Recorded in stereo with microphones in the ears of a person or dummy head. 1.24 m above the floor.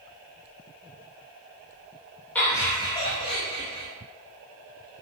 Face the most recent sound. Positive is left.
turn(degrees=30)  # may be behind; listen again after turning